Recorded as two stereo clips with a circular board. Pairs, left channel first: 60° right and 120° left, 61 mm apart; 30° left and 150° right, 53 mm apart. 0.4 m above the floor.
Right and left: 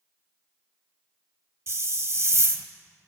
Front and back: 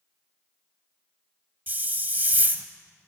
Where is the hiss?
160° left, 0.7 m.